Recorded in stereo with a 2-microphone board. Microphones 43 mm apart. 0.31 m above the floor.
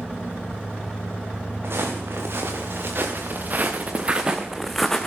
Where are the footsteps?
70° right (ahead or behind), 4 m; by 5.1 s 15° left (ahead or behind), 1.6 m.